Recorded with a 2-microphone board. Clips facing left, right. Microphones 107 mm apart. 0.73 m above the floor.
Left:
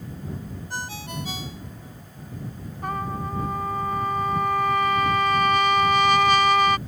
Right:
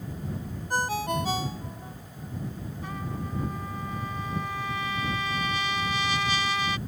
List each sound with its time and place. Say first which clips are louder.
0.7 s a ringtone: right 8 dB; 45° right (ahead or behind)
2.8 s a trumpet: left 8 dB; 60° left (ahead or behind)